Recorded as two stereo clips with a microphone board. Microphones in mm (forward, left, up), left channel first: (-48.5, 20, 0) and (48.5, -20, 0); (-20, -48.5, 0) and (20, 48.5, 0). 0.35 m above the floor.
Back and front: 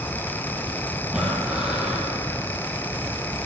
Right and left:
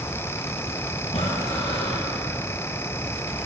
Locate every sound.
1.1 s breathing: 105° right, 4 m